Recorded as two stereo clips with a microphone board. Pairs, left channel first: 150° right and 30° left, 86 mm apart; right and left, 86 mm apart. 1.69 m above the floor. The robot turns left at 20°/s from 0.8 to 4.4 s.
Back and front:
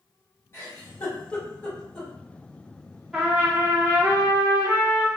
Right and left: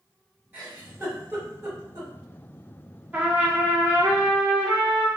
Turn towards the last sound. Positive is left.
turn(degrees=70)